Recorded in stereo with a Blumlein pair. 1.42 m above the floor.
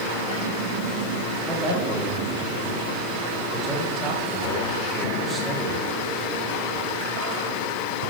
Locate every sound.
1.5 s a man speaking: 20° right, 2.5 m